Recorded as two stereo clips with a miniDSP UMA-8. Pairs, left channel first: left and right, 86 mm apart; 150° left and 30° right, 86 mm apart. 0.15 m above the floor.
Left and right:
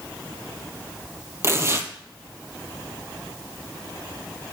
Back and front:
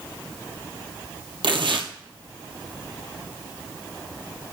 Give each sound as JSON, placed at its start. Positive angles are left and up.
{"t": 1.4, "sound": "tearing paper", "azimuth_deg": -35, "distance_m": 1.0}